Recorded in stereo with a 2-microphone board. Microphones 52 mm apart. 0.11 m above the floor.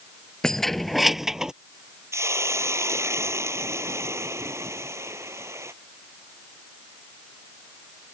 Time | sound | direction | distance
0.4 | keys jangling | 10° left (ahead or behind) | ?
2.1 | a hiss | 60° right (ahead or behind) | ?